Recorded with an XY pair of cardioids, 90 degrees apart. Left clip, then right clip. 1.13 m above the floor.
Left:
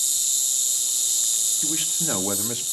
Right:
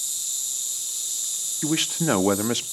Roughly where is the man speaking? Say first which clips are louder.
Right 2 dB; ahead right.